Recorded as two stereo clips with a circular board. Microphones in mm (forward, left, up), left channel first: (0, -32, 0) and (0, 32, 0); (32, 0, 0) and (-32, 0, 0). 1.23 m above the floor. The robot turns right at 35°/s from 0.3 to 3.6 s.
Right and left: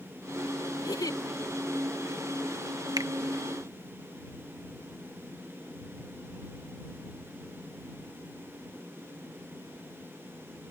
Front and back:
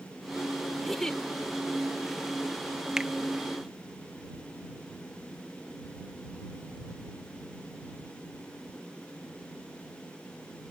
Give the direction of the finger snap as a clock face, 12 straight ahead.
9 o'clock.